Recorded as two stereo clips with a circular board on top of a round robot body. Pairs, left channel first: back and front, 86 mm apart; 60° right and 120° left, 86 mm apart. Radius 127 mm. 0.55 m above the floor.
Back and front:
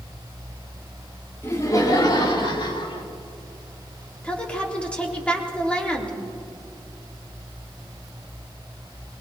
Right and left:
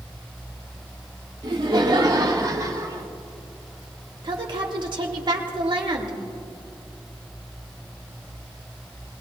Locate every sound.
1.4 s laughter: 125° left, 2.5 m; by 3.1 s 165° left, 3.5 m
4.2 s a woman speaking: 100° left, 3 m